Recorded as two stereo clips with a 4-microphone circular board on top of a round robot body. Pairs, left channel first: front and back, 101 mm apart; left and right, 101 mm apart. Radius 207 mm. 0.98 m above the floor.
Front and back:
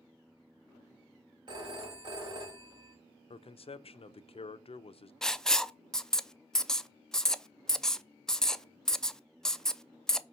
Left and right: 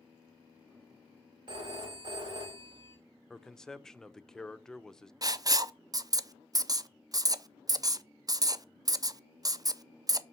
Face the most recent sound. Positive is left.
turn(degrees=-80)